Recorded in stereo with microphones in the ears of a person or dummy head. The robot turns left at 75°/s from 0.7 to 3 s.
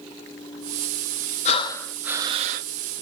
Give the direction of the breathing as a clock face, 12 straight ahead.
11 o'clock.